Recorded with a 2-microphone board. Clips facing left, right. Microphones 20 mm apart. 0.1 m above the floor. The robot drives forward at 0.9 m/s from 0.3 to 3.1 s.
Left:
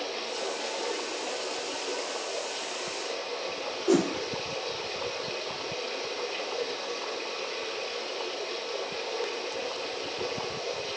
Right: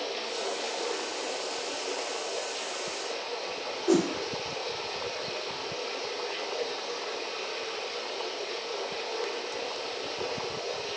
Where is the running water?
25° right (ahead or behind), 2.5 m; by 11.0 s 10° right (ahead or behind), 5 m.